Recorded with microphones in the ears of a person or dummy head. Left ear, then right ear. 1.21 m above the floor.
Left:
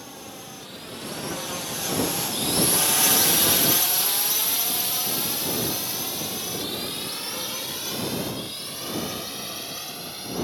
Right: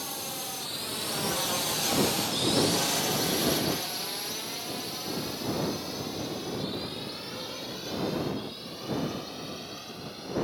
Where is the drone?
25° right (ahead or behind); by 10.4 s 40° left (ahead or behind).